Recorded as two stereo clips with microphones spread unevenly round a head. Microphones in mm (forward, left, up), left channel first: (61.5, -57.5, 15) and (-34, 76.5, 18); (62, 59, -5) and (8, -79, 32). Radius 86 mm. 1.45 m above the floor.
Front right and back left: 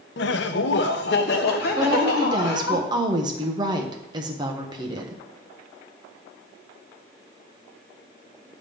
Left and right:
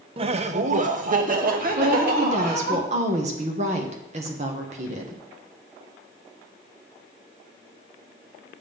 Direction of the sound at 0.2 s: 75° right.